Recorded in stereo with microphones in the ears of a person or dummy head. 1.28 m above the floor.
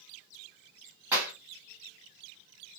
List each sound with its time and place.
1.1 s a clap: 10° right (ahead or behind), 1.5 m